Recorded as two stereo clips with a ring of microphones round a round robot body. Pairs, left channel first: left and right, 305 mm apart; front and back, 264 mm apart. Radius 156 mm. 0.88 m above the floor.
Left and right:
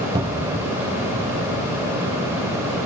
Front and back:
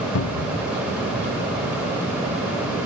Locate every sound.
0.1 s a cupboard door: 15° right